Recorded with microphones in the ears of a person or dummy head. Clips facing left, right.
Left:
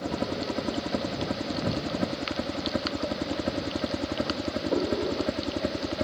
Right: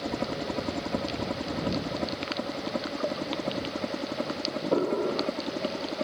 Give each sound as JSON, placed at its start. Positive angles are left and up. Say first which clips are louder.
{"t": 0.0, "sound": "a helicopter", "louder": "left 1 dB", "side_deg": 5}